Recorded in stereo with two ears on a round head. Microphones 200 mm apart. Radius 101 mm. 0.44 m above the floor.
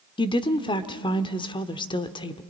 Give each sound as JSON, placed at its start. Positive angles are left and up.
{"t": 0.2, "sound": "a woman speaking", "side_deg": 20, "distance_m": 0.9}